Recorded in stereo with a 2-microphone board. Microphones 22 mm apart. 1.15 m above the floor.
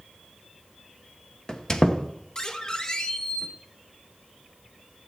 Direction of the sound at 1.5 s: 30° left (ahead or behind).